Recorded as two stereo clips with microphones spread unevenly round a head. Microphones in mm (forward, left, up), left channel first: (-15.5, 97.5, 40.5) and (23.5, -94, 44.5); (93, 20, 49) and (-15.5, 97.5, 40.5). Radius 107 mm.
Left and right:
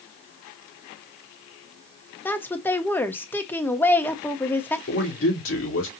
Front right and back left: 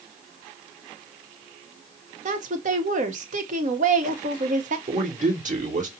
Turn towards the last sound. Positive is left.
turn(degrees=125)